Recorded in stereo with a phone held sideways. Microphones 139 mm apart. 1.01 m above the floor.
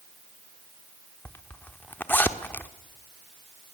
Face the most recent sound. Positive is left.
turn(degrees=15)  # may be behind; listen again after turning